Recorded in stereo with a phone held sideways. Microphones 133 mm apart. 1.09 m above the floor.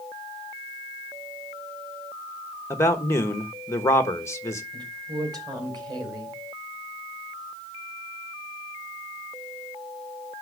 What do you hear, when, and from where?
2.7 s a man speaking: 20° left (ahead or behind), 1.2 m
4.7 s a woman speaking: 35° right (ahead or behind), 4 m